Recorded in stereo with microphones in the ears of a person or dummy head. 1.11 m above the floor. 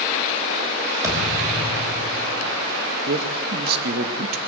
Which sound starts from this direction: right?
A man speaking, at 3.1 s.